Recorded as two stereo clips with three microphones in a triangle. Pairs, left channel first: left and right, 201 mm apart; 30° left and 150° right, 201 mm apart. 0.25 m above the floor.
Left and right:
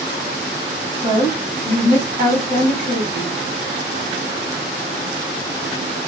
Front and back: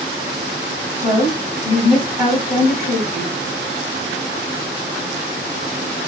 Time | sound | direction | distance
1.0 | a woman speaking | 80° right | 1.4 m